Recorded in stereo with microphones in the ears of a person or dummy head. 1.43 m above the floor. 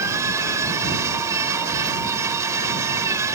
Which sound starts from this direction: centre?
A machine running, at 0.0 s.